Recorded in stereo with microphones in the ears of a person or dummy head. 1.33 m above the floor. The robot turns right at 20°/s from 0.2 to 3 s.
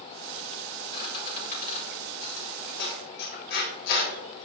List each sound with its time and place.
0.9 s a squeak: 30° left (ahead or behind), 3.5 m; by 4.5 s 65° left (ahead or behind), 3.5 m